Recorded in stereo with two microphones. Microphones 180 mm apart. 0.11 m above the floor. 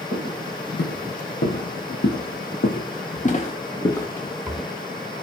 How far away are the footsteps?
About 2.5 m.